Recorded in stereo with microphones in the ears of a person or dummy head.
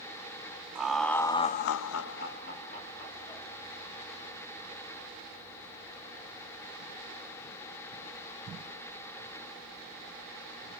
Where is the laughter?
5° right (ahead or behind), 1.2 m; by 3.5 s 40° left (ahead or behind), 2 m.